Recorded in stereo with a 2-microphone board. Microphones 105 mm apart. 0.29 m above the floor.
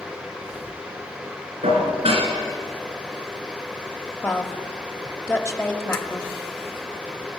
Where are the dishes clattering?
75° right (ahead or behind), 2.5 m.